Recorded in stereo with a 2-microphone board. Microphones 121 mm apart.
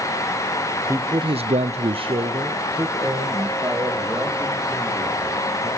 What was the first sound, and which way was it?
A man speaking, 25° right (ahead or behind).